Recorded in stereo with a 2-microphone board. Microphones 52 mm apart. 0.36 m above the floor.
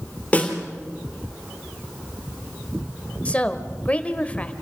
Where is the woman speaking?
25° left (ahead or behind), 1.2 m.